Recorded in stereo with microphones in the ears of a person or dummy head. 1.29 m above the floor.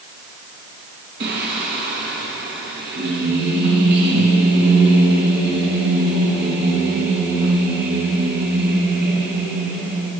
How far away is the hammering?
I don't hear hammering.